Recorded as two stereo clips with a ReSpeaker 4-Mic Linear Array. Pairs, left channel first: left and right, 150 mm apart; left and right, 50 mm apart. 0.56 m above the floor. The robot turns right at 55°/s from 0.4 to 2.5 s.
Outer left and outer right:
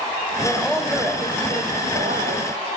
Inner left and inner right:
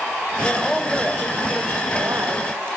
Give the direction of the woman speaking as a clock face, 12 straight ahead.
7 o'clock.